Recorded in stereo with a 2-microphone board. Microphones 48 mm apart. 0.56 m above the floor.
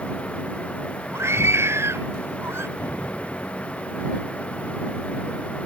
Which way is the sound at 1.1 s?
65° right (ahead or behind).